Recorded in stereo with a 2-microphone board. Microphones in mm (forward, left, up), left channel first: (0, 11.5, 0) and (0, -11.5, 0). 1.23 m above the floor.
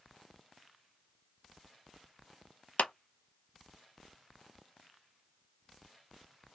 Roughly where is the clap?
Left.